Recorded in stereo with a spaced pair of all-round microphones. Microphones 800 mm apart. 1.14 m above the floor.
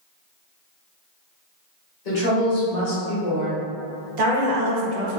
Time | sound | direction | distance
2.0 | a woman speaking | 65° left (ahead or behind) | 1.6 m
4.2 | a woman speaking | 60° right (ahead or behind) | 0.8 m